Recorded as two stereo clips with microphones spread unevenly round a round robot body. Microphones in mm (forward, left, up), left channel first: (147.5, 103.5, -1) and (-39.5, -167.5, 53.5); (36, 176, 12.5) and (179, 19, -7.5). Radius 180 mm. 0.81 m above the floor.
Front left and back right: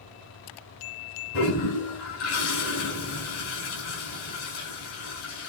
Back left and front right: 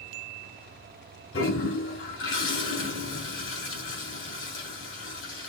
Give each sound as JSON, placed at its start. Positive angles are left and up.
{"t": 1.3, "sound": "a toilet flushing", "azimuth_deg": 110, "distance_m": 3.5}